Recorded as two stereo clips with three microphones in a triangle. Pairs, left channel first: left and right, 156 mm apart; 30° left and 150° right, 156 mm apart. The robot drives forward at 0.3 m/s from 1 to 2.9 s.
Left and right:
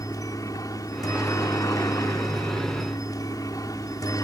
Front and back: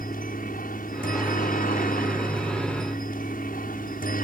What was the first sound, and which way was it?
A helicopter, 25° left.